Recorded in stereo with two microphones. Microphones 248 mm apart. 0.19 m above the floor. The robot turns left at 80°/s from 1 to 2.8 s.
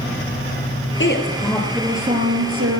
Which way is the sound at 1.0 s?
55° left.